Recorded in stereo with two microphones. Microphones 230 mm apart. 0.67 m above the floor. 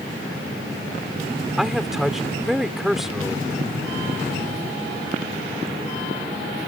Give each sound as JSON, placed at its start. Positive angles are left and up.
{"t": 1.6, "sound": "a man speaking", "side_deg": 0}